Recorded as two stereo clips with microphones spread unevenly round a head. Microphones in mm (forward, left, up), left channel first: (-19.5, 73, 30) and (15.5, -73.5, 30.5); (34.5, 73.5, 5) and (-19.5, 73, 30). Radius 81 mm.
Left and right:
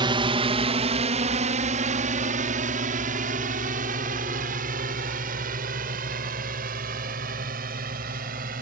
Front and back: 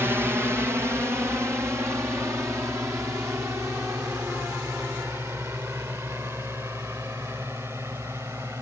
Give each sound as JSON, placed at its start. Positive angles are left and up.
{"t": 0.0, "sound": "a drone", "azimuth_deg": -110}